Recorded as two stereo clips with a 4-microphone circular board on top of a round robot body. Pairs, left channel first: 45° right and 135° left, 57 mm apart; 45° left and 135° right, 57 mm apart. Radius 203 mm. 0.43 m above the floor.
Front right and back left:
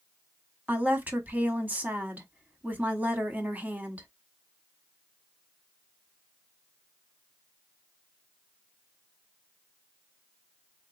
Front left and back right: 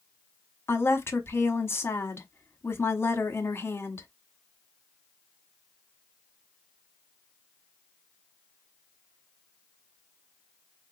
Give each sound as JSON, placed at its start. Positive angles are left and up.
{"t": 0.7, "sound": "a woman speaking", "azimuth_deg": 80, "distance_m": 1.3}